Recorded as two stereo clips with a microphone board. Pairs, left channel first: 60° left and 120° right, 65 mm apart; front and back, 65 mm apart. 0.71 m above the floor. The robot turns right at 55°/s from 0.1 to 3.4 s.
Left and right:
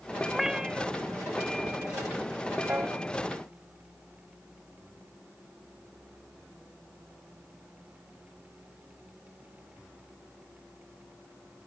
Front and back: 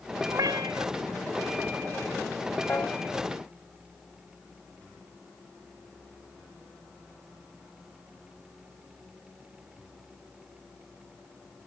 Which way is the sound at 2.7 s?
60° right.